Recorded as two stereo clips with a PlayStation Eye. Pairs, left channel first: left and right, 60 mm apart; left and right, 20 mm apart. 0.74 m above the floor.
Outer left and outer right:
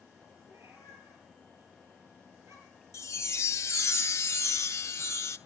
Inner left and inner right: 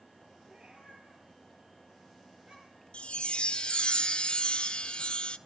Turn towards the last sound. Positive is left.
turn(degrees=50)  # may be behind; listen again after turning